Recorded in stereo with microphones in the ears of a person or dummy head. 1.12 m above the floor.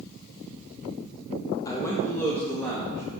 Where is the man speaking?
20° left (ahead or behind), 0.8 m; by 3.2 s 10° left (ahead or behind), 2.5 m.